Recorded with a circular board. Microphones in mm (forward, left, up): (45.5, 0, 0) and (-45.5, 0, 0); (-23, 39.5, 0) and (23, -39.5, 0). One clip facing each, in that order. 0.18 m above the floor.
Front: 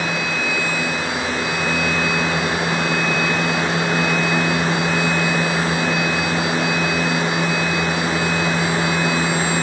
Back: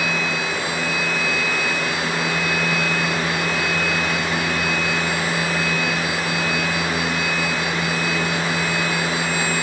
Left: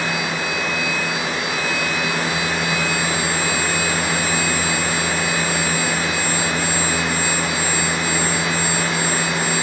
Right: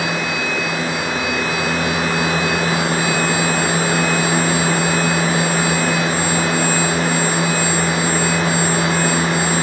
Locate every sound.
Only background noise.